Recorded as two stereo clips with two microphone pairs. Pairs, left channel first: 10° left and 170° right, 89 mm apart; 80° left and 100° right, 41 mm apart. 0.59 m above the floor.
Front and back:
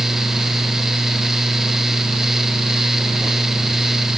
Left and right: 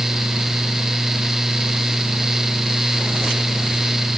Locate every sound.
Only background noise.